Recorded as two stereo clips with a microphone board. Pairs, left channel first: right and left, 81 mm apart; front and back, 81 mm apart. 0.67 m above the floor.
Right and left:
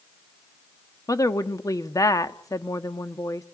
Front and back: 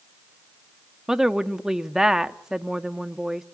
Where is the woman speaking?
100° right, 1.0 m.